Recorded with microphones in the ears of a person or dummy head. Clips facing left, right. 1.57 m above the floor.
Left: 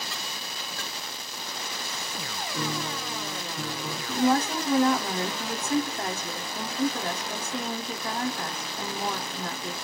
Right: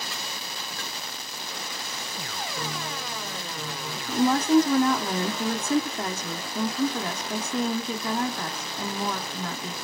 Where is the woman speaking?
75° right (ahead or behind), 0.7 m.